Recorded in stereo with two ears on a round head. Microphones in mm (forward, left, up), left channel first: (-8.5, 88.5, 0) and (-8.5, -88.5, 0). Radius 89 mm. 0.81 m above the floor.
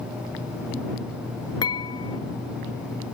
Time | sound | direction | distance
1.6 | dishes clattering | 20° left (ahead or behind) | ?